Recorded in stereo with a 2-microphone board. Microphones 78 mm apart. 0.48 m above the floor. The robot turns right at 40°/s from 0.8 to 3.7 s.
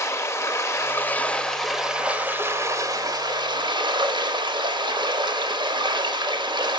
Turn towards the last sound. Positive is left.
turn(degrees=-100)